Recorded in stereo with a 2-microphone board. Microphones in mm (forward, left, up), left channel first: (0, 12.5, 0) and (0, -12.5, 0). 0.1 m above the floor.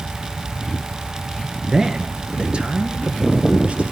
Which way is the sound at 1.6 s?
25° right (ahead or behind).